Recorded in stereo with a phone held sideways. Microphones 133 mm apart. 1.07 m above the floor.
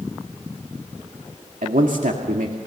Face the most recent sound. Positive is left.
turn(degrees=-80)